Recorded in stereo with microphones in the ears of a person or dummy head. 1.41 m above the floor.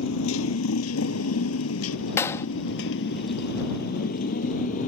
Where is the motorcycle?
75° left (ahead or behind); by 4.9 s 45° left (ahead or behind).